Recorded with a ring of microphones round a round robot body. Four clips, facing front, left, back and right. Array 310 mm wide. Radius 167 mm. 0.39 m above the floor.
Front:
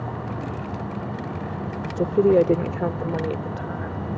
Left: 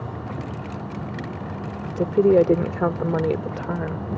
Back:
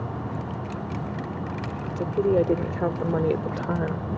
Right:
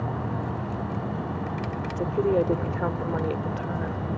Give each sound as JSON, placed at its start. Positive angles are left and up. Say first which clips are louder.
{"t": 1.9, "sound": "a woman speaking", "louder": "left 8 dB, front 5 dB", "azimuth_deg": 45}